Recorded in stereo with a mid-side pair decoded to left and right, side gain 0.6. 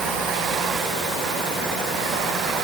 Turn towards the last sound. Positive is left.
No sound to turn to.